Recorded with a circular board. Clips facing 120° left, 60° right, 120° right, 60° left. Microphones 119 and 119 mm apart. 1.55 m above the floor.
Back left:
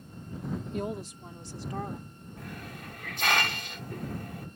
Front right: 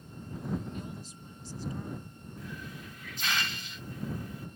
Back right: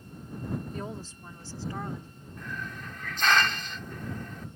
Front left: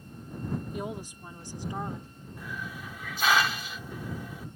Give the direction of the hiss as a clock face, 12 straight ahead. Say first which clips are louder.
Back left 1 dB, even; 7 o'clock.